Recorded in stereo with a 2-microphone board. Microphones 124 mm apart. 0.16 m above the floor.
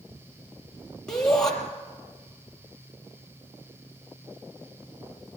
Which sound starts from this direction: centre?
A shout, at 1.1 s.